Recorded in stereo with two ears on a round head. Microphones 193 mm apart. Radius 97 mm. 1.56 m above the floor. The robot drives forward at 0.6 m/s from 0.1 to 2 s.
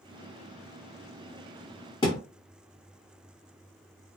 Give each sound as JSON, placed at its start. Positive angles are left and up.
{"t": 2.0, "sound": "a thud", "side_deg": 20, "distance_m": 1.0}